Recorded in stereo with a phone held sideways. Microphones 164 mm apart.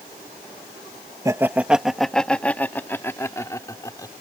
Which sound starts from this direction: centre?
Laughter, at 1.2 s.